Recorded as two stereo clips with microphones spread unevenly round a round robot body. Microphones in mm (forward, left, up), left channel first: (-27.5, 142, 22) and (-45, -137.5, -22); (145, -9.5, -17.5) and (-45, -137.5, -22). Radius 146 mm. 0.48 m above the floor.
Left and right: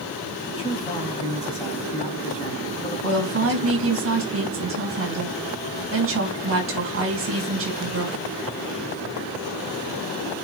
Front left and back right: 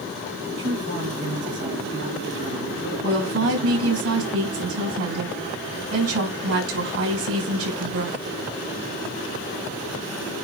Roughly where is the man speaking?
Behind.